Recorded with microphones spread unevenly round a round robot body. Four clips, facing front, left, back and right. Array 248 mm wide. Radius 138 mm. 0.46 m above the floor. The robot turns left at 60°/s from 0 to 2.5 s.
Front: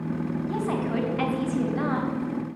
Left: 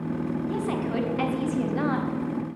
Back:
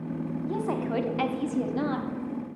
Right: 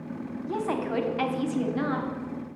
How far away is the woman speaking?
About 1.2 m.